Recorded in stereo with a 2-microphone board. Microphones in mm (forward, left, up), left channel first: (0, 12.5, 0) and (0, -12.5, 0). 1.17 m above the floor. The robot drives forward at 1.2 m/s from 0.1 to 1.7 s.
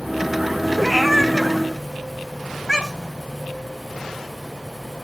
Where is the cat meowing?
10° right (ahead or behind), 1.9 m; by 3.2 s 5° right (ahead or behind), 3 m.